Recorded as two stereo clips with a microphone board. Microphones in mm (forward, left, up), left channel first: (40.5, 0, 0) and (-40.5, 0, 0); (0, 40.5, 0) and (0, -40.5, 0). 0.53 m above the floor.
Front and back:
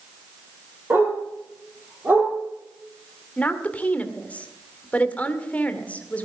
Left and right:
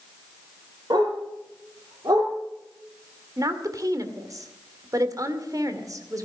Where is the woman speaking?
65° right, 1.8 m.